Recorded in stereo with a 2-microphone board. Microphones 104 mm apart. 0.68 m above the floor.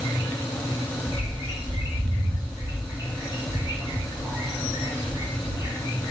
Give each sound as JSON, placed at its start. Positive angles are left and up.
{"t": 1.1, "sound": "a bird", "side_deg": -35, "distance_m": 3.0}